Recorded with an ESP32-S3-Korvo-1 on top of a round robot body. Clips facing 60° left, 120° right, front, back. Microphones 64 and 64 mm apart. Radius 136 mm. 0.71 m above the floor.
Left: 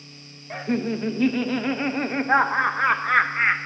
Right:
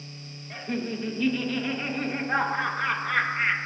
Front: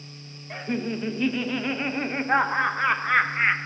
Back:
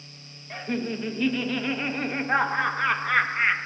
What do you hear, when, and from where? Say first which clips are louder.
0.5 s laughter: left 6 dB, front 1 dB; 75° left, 0.7 m